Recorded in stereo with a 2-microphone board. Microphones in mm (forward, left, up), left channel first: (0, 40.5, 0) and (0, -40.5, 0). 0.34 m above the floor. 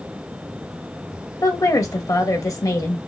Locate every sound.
1.4 s a woman speaking: 45° left (ahead or behind), 1.3 m